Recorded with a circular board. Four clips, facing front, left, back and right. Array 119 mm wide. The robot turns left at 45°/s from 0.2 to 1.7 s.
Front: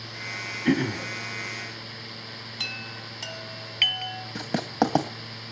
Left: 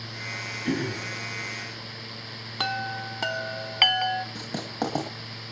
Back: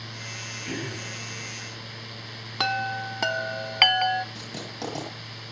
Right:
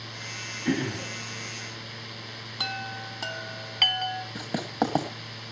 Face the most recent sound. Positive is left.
turn(degrees=-15)